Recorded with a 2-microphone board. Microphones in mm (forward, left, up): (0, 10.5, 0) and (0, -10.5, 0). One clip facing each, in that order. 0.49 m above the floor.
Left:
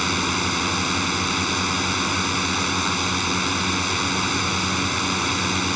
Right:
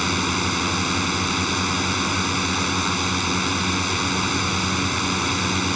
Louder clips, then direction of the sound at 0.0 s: Even; 5° left (ahead or behind).